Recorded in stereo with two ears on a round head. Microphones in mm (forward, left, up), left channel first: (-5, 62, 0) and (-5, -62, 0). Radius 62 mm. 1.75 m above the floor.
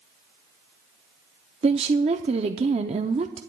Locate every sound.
1.6 s a woman speaking: 45° right (ahead or behind), 0.6 m